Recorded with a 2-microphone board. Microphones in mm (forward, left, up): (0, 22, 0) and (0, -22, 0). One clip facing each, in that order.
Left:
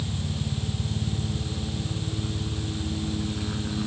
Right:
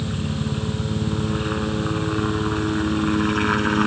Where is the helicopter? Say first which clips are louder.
Right 6 dB; 65° right (ahead or behind).